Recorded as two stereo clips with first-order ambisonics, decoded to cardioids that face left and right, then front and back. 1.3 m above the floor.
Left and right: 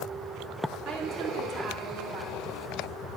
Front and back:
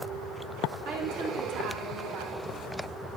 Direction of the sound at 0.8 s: 175° left.